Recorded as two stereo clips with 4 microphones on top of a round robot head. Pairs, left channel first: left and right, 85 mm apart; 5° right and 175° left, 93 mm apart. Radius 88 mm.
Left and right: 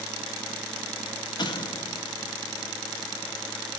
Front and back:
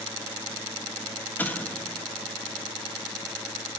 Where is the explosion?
60° left, 1.6 m.